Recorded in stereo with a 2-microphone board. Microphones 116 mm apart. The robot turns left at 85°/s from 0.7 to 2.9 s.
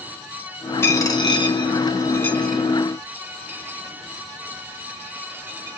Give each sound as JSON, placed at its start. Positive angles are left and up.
{"t": 0.8, "sound": "a dropped coin", "side_deg": 20, "distance_m": 0.8}